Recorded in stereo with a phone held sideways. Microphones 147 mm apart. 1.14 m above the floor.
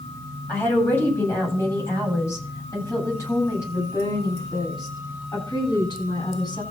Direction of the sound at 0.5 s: 15° left (ahead or behind).